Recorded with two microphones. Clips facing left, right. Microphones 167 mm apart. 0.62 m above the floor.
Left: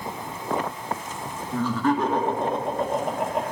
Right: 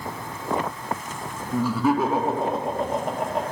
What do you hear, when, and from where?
1.5 s laughter: 10° right (ahead or behind), 1.3 m; by 3.4 s 5° left (ahead or behind), 1.2 m